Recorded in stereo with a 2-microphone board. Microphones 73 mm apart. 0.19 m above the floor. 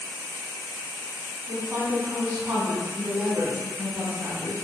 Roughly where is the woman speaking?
Right.